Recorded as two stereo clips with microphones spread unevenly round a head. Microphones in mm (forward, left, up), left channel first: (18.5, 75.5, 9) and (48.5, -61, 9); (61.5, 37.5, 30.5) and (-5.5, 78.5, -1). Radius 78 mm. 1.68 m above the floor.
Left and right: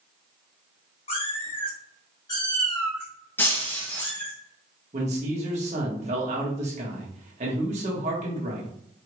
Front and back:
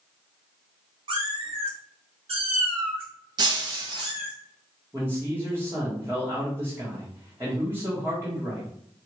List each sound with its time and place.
1.1 s a cat meowing: 135° left, 1.3 m; by 4.3 s 175° right, 2.5 m
3.4 s breaking glass: 160° left, 0.9 m
4.9 s a man speaking: 125° right, 1.3 m